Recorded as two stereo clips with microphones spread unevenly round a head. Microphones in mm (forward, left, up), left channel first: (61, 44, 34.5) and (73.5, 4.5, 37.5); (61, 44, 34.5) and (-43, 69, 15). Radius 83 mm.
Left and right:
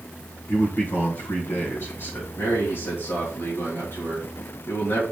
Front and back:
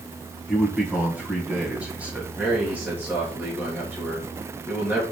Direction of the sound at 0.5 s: 85° left.